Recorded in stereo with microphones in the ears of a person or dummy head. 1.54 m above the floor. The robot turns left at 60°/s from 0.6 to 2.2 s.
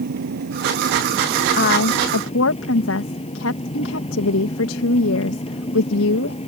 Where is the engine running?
110° right; by 6.5 s 150° left.